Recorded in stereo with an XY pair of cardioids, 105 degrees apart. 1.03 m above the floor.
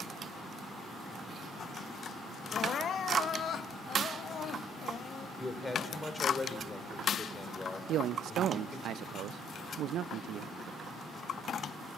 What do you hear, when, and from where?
2.5 s crying: 55° left, 1.0 m
5.4 s a man speaking: 20° left, 3 m
7.9 s a man speaking: 70° right, 0.5 m